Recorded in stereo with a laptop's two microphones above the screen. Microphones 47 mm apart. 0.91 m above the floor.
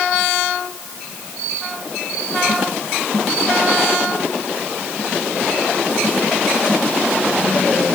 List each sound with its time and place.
Only background noise.